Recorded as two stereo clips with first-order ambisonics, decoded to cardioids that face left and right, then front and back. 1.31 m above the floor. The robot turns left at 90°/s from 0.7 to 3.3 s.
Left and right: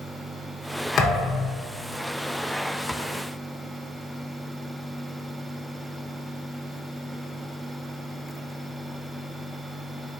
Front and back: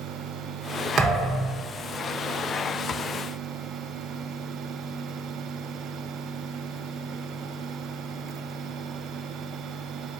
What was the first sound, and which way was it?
A thud, 135° left.